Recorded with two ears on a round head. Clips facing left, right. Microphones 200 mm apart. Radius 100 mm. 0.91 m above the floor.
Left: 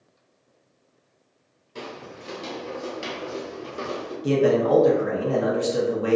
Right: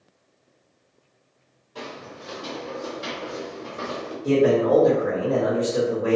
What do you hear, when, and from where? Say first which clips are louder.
1.8 s footsteps: even; 30° left (ahead or behind), 1.2 m; by 4.1 s 40° left (ahead or behind), 1.5 m
4.2 s a man speaking: right 1 dB; 65° left (ahead or behind), 0.8 m